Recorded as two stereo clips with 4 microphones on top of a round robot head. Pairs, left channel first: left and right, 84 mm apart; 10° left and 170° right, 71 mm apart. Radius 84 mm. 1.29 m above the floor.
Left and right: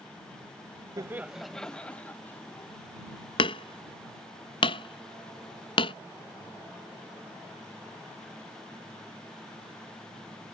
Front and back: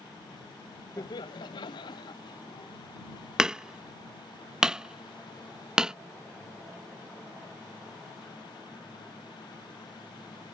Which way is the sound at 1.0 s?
45° right.